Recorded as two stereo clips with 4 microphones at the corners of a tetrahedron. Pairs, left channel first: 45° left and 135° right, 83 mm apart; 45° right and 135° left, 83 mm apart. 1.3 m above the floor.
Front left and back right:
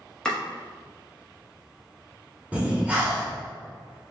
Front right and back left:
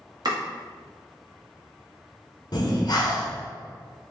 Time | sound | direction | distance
0.2 | chopping | 125° left | 0.8 m
2.5 | breathing | 60° right | 0.8 m